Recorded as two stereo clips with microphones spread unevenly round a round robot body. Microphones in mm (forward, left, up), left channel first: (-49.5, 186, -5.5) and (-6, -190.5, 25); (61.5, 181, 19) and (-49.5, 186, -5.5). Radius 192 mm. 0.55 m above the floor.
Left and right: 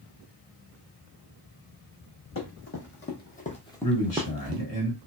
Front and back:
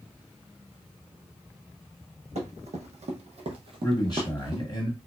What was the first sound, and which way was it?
Running footsteps, 155° left.